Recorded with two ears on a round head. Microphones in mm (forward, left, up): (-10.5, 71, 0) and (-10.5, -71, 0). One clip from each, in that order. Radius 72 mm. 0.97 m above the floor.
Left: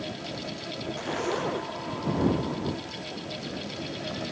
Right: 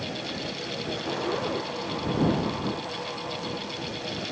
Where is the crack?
I don't hear a crack.